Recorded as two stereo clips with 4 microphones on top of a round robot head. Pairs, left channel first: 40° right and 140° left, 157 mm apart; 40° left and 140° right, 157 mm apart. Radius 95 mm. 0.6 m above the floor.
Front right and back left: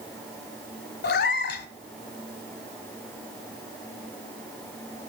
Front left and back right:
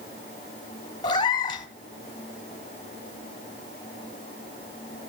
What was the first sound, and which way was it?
A cat meowing, 25° right.